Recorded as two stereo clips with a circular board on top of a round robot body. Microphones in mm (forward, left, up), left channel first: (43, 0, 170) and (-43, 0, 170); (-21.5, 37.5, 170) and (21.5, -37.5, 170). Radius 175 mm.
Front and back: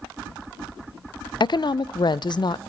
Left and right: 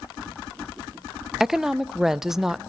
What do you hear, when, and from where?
1.4 s a woman speaking: 25° left, 0.6 m